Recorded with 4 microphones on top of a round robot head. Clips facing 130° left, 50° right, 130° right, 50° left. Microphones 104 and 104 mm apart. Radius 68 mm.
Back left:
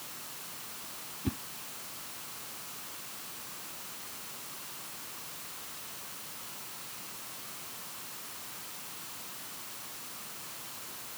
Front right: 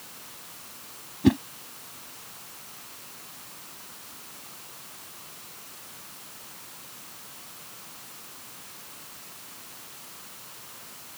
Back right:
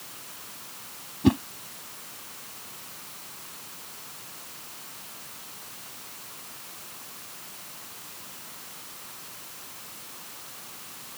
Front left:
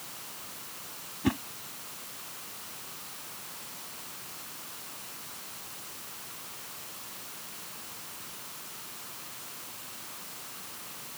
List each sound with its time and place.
1.2 s a whoosh: 60° right